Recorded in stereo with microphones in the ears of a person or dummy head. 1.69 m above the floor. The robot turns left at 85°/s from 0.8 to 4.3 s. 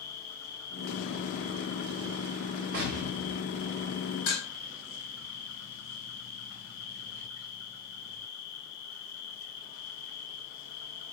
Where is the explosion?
110° right, 0.6 m; by 4.2 s 130° left, 0.6 m.